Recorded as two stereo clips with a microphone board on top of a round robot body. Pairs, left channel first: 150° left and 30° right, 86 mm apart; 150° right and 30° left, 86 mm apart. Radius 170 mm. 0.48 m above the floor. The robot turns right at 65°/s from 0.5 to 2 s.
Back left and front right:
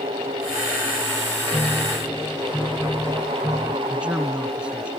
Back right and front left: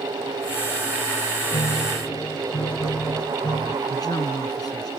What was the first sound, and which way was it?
A piano, 135° right.